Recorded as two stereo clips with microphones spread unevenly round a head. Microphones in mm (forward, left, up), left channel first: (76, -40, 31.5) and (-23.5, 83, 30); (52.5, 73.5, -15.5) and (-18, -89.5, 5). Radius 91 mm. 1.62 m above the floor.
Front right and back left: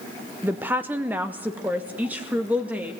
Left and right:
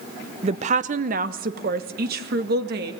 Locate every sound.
0.4 s a woman speaking: 155° right, 0.6 m; by 2.9 s 150° right, 2 m